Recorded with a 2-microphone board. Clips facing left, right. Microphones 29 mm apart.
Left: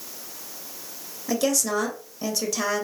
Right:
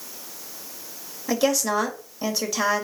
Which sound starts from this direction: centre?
A woman speaking, at 1.3 s.